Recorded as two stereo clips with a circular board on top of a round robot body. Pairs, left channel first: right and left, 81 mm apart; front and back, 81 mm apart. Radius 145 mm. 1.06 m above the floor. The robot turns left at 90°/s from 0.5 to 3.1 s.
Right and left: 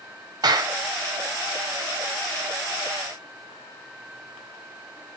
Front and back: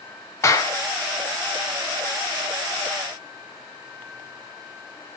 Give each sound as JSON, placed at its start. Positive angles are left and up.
{"t": 0.4, "sound": "a clap", "azimuth_deg": 55, "distance_m": 1.7}